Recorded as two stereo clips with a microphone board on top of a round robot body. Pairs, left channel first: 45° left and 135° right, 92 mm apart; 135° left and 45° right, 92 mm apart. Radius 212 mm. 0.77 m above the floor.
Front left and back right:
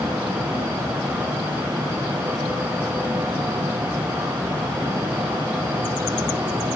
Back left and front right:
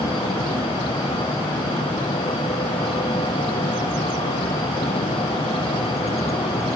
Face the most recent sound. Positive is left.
No sound to turn to.